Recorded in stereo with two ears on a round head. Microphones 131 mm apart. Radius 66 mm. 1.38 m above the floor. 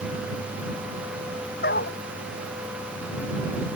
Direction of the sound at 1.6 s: 70° left (ahead or behind).